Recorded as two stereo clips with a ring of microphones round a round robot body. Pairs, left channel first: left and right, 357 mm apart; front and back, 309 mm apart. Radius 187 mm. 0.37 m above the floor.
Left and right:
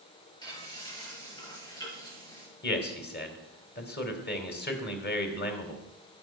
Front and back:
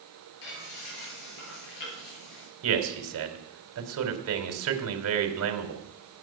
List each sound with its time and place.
0.4 s frying: 10° left, 9 m
2.6 s a man speaking: 150° left, 3 m